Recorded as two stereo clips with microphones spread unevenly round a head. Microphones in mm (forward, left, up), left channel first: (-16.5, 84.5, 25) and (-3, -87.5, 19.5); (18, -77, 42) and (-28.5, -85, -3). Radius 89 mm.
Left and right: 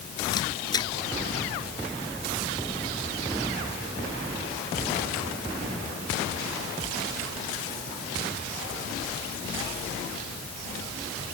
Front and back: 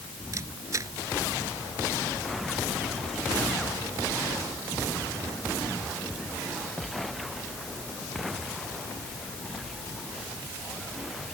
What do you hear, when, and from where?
0.3 s a camera shutter: 165° left